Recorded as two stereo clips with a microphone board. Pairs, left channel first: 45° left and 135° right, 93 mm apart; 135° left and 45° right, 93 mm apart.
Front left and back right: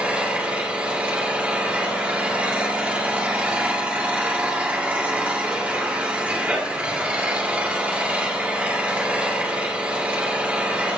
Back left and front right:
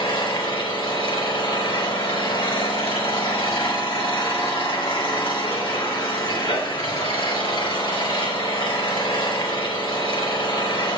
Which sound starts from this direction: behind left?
An engine running, at 0.0 s.